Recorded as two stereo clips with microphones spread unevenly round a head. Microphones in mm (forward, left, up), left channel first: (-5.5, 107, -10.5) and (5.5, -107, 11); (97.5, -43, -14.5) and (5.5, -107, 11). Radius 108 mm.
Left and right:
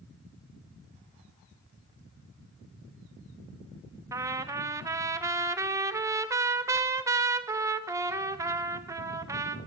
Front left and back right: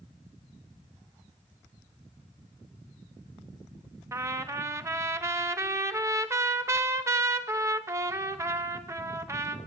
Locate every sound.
4.1 s a trumpet: 145° right, 0.5 m